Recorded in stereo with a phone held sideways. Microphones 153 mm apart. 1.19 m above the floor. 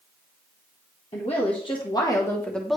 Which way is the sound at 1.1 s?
45° left (ahead or behind).